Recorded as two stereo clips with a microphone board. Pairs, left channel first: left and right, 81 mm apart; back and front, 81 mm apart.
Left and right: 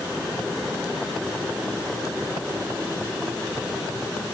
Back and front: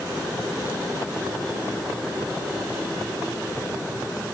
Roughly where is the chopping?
I don't hear chopping.